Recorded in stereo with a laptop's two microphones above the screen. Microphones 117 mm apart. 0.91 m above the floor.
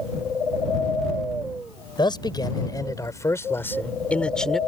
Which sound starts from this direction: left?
A man speaking, at 2.0 s.